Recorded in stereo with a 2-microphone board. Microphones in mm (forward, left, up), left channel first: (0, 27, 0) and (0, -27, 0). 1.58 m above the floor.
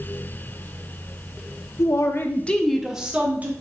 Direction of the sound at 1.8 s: 70° left (ahead or behind).